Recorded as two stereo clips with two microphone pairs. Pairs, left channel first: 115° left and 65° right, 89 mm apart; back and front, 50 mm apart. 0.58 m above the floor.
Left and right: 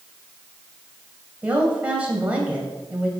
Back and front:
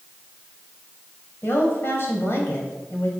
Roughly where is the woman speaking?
Behind right.